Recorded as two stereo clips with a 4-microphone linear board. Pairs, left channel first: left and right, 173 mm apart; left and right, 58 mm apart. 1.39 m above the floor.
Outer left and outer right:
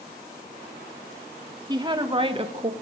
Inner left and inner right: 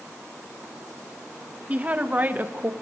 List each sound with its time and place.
1.7 s a woman speaking: 25° right (ahead or behind), 2.5 m; by 2.7 s 40° right (ahead or behind), 1.4 m